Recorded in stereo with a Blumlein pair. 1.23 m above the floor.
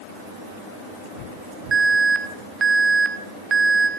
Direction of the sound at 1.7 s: 15° right.